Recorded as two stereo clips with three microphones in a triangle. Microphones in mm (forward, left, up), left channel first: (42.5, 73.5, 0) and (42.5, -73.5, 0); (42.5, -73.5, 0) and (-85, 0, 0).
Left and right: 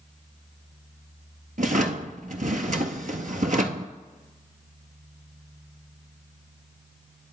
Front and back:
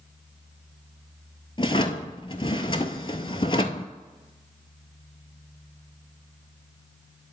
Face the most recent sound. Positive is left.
turn(degrees=-85)